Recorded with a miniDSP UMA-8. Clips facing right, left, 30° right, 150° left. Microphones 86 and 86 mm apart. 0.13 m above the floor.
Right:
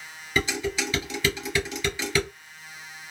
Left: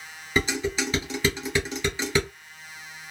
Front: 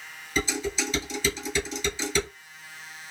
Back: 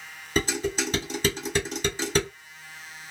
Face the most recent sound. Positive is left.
turn(degrees=145)